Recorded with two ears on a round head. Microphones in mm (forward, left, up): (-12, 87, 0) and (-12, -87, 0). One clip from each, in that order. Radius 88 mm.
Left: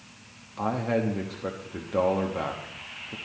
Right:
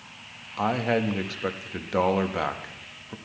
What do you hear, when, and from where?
0.6 s a man speaking: 50° right (ahead or behind), 1.1 m